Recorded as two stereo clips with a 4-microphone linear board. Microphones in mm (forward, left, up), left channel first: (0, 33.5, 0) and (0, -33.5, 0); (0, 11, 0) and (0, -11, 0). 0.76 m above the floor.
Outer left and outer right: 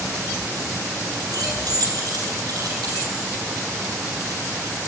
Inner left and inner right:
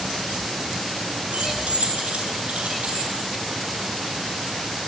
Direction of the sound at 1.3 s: 75° right (ahead or behind).